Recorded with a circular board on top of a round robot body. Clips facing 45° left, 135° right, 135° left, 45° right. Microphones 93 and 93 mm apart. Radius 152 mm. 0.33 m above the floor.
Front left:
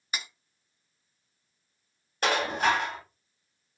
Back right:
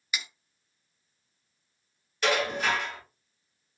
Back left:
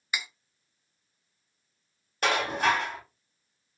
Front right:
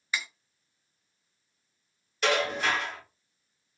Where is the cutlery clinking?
65° left, 0.8 m.